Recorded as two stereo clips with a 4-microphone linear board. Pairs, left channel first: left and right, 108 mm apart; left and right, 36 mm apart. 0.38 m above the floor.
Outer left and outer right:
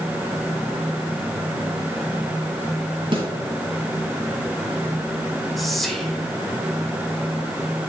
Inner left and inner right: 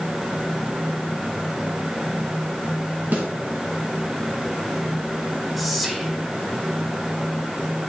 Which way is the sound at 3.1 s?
50° right (ahead or behind).